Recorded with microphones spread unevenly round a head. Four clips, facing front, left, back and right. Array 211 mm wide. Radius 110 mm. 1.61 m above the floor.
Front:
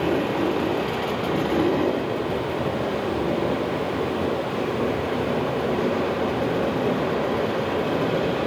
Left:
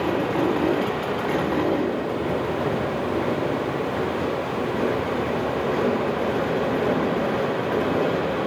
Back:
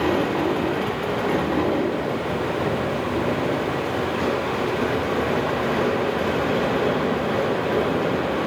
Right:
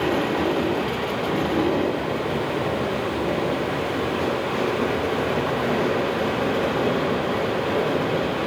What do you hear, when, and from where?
Only background noise.